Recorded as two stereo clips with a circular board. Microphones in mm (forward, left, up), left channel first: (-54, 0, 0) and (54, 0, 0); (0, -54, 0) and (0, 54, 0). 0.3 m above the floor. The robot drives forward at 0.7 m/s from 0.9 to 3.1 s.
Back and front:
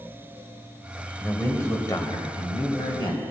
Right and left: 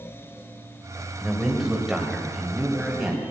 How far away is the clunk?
I don't hear a clunk.